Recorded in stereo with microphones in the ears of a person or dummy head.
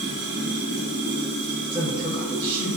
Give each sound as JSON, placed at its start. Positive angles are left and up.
{"t": 0.0, "sound": "running water", "side_deg": 45, "distance_m": 1.7}
{"t": 1.7, "sound": "a woman speaking", "side_deg": -10, "distance_m": 0.5}